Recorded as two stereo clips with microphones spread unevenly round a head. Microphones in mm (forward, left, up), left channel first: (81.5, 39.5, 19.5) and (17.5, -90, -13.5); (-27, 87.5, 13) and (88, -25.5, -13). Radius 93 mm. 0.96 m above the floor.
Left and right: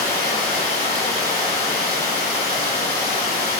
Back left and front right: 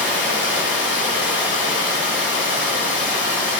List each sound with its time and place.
0.0 s running water: 135° left, 2 m